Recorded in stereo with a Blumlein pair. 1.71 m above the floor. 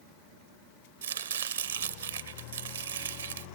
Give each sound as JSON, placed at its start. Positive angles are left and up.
{"t": 1.0, "sound": "chopping", "azimuth_deg": -70, "distance_m": 0.7}